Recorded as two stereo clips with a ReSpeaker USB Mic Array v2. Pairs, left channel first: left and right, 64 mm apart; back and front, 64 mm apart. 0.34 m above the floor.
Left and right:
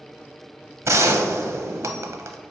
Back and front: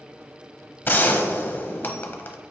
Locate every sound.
0.8 s a gunshot: 125° right, 0.6 m